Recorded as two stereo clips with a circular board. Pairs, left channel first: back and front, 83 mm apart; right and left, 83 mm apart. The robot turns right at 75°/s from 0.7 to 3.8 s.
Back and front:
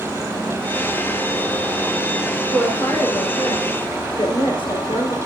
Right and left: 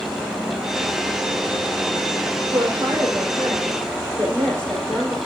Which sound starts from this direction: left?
A woman speaking, at 2.5 s.